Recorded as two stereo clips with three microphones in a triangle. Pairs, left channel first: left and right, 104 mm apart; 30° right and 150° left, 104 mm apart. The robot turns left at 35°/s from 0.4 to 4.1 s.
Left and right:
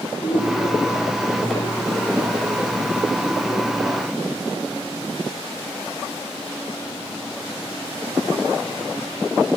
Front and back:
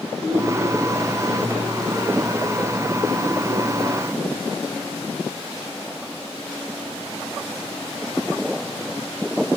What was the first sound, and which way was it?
A woman speaking, 85° left.